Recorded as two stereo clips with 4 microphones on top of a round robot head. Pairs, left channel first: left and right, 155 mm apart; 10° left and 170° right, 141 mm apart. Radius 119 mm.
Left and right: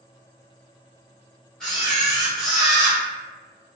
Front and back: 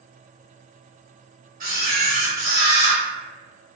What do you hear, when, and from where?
1.6 s a camera shutter: straight behind, 1.8 m